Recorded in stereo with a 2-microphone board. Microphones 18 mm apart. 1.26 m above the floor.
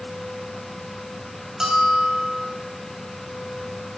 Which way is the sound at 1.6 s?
20° right (ahead or behind).